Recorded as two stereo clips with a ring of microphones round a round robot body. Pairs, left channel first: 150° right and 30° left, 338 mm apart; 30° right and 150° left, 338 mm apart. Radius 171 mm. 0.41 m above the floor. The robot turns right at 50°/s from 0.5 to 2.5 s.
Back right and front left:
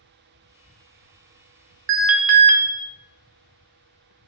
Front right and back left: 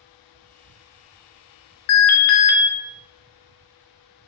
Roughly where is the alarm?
Ahead.